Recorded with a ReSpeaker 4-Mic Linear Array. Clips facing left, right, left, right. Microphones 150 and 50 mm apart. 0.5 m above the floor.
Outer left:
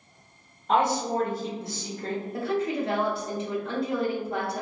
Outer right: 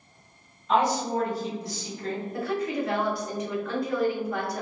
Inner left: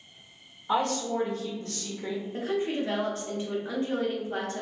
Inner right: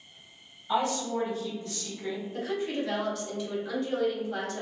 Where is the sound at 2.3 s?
25° left (ahead or behind), 0.9 m.